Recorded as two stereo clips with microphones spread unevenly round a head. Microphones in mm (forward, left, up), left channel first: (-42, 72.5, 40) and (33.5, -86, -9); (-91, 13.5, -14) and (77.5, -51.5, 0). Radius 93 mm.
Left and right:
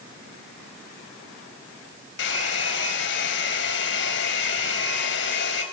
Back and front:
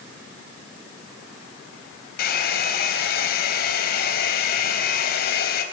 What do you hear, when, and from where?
2.2 s a hair dryer: 115° left, 4 m